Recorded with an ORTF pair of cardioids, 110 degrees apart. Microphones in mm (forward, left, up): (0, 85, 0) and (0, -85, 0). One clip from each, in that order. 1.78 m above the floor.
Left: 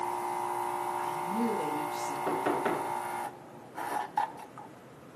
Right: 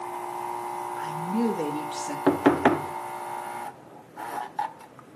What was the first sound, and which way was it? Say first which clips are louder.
A woman speaking: right 3 dB; 50° right.